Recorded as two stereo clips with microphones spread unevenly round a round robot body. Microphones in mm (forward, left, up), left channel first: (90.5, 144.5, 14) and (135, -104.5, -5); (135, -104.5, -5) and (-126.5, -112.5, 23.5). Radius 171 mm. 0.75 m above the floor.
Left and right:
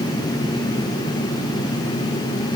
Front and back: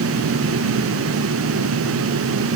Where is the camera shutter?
No camera shutter in this recording.